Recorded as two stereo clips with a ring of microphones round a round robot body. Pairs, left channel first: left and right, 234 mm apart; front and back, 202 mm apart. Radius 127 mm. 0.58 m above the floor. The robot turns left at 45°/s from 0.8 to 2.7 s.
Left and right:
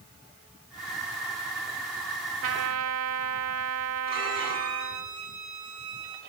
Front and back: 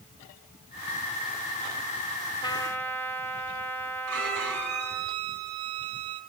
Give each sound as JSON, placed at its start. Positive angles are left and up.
{"t": 2.4, "sound": "a trumpet", "azimuth_deg": -70, "distance_m": 1.1}
{"t": 4.1, "sound": "a violin", "azimuth_deg": -155, "distance_m": 5.5}